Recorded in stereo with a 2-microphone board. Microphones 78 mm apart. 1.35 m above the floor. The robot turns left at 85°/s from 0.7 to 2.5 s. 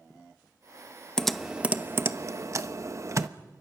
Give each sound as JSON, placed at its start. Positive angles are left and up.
{"t": 1.2, "sound": "typing on a keyboard", "side_deg": 10, "distance_m": 0.7}